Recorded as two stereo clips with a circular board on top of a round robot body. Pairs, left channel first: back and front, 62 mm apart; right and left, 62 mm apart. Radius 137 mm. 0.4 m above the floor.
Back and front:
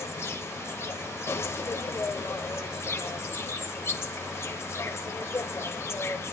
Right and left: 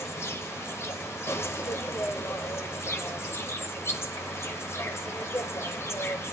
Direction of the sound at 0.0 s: 135° right.